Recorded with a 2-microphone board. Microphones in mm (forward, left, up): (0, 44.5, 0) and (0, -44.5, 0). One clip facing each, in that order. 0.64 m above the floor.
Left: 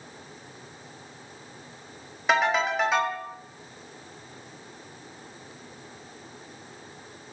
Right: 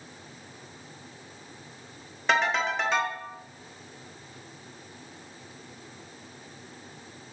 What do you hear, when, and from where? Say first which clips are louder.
2.3 s a ringtone: left 2 dB; 5° left (ahead or behind), 0.7 m